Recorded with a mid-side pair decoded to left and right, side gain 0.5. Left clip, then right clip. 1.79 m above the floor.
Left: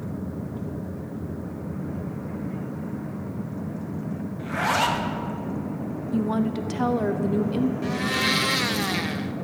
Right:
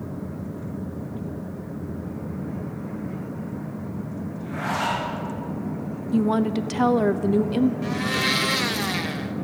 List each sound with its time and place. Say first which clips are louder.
4.4 s a zipper: left 4 dB; 55° left, 2 m
6.1 s a woman speaking: right 4 dB; 30° right, 0.8 m
7.8 s a blender: even; straight ahead, 0.7 m